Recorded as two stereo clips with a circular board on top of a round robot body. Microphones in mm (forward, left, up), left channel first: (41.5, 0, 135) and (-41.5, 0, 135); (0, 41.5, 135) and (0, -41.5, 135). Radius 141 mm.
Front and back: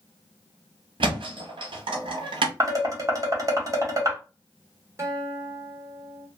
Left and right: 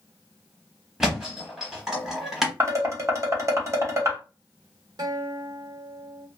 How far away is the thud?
About 0.7 m.